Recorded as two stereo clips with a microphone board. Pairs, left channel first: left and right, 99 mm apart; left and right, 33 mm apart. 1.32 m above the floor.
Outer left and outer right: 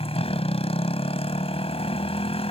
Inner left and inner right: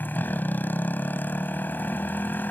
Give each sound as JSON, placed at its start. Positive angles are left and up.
{"t": 0.0, "sound": "a motorcycle", "side_deg": 80}